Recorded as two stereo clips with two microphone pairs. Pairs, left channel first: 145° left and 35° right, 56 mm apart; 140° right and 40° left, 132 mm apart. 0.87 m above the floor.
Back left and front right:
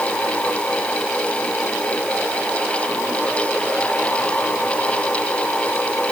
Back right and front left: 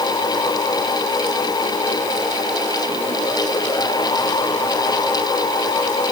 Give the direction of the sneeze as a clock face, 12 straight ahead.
No sneeze in this recording.